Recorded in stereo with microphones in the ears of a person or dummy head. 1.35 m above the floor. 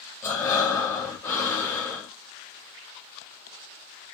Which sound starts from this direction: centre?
Breathing, at 0.2 s.